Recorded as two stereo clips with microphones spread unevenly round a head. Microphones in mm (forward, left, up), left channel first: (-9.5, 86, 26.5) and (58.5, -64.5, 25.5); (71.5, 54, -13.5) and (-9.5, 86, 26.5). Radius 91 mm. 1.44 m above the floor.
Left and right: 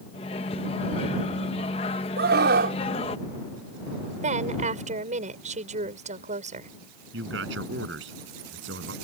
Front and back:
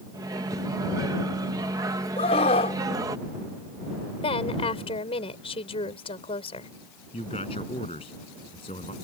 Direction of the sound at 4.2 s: 20° right.